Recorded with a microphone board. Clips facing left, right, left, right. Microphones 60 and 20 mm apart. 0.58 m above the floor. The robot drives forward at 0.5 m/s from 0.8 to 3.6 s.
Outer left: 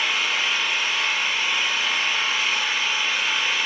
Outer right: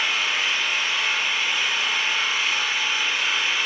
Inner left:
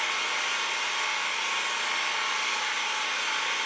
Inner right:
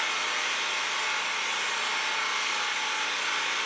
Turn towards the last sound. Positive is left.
turn(degrees=0)  # may be behind; listen again after turning